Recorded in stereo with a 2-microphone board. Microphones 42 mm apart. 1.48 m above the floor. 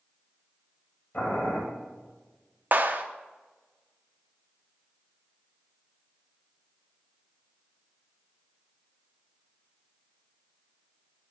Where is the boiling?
50° left (ahead or behind), 3 m.